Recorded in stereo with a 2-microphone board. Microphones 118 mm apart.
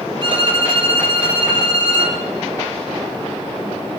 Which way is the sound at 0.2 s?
40° right (ahead or behind).